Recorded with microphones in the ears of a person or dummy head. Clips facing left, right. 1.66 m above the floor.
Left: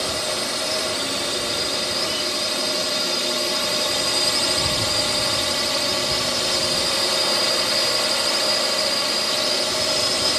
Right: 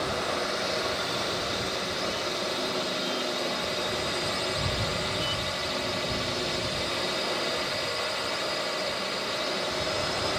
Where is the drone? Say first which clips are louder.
Left 3 dB; 60° left (ahead or behind).